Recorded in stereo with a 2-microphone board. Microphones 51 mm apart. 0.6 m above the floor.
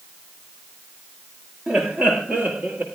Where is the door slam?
I don't hear a door slam.